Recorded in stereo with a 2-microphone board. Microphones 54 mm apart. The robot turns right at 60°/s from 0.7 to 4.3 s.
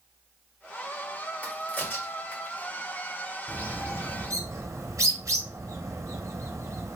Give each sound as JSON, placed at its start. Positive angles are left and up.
{"t": 1.4, "sound": "a crack", "side_deg": 25, "distance_m": 1.9}
{"t": 3.5, "sound": "a bird", "side_deg": -35, "distance_m": 0.8}